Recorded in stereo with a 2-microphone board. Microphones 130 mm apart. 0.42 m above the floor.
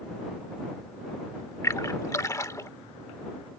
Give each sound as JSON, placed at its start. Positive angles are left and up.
{"t": 1.6, "sound": "a splash", "side_deg": 25}